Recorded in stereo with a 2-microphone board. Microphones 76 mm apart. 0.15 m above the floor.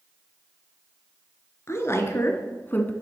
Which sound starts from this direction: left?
A woman speaking, at 1.7 s.